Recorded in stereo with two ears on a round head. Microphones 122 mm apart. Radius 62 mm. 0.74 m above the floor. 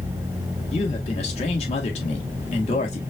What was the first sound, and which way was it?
A man speaking, 50° left (ahead or behind).